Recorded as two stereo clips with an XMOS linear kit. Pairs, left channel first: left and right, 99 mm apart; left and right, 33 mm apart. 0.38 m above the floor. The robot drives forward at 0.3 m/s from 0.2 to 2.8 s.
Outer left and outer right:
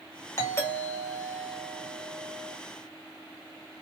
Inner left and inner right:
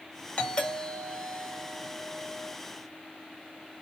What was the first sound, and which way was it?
A doorbell, 30° left (ahead or behind).